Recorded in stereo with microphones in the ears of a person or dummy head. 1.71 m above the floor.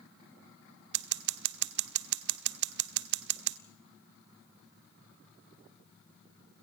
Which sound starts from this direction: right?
Scissors, at 0.9 s.